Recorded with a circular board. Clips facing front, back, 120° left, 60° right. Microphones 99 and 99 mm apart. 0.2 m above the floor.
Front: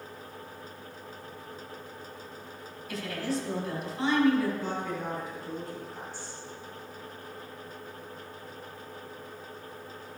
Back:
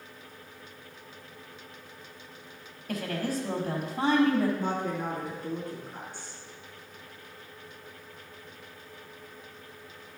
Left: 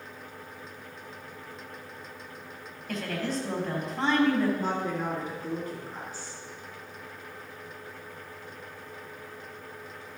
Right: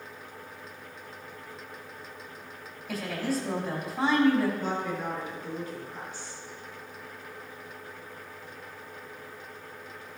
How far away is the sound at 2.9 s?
About 4 m.